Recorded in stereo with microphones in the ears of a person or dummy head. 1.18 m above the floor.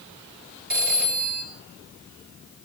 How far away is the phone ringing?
About 3 m.